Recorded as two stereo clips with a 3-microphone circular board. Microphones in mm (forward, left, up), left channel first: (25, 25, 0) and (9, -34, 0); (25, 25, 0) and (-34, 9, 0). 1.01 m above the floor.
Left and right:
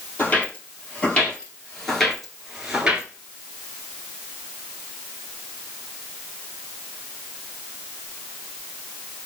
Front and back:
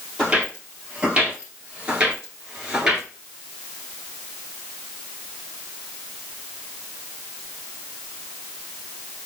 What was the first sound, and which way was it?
Footsteps, 125° left.